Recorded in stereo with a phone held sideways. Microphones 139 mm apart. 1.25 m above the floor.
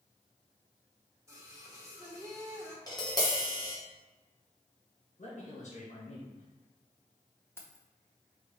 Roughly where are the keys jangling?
Centre.